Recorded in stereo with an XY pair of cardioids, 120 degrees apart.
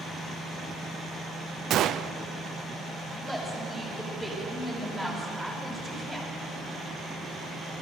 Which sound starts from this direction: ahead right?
A gunshot, at 1.7 s.